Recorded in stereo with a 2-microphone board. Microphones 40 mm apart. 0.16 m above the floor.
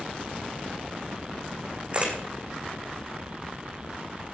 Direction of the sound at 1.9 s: 35° right (ahead or behind).